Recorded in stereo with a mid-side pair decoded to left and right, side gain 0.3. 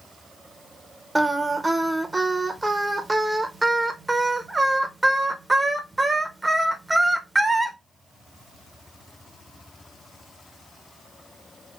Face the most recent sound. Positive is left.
turn(degrees=-20)